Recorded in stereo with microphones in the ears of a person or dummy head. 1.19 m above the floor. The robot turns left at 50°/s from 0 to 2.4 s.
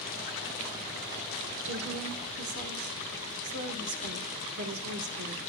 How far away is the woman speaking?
About 3 m.